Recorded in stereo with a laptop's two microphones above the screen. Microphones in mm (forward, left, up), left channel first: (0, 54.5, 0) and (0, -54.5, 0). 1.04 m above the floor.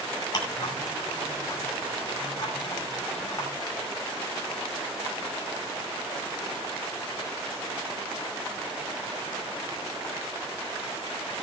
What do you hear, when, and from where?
0.3 s ticking: 40° left (ahead or behind), 5.5 m